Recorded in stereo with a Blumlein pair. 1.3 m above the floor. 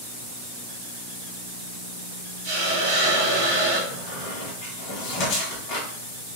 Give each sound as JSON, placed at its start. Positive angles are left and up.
{"t": 2.4, "sound": "a hiss", "azimuth_deg": -35, "distance_m": 1.5}
{"t": 3.9, "sound": "a squeak", "azimuth_deg": 35, "distance_m": 1.3}